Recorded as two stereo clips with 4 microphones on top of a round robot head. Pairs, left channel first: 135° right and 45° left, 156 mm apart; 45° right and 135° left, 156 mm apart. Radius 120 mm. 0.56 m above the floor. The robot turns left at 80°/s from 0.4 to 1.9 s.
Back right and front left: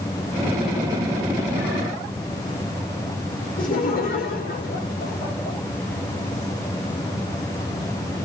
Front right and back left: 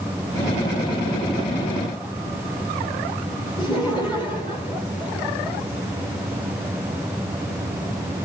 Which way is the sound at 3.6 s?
105° right.